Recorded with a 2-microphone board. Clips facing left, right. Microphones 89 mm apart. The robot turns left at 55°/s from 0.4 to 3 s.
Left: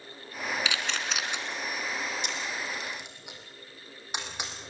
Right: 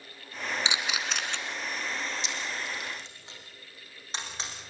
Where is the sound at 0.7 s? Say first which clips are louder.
Even; 155° right, 2 m; by 1.4 s 165° left, 2 m.